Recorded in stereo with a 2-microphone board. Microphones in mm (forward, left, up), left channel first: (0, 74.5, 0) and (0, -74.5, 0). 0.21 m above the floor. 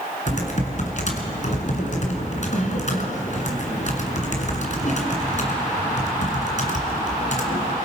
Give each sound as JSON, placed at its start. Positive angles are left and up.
{"t": 0.3, "sound": "typing on a keyboard", "side_deg": 55, "distance_m": 2.0}